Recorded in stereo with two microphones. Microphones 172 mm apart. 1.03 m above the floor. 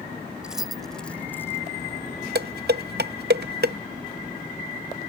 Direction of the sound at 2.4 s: 70° right (ahead or behind).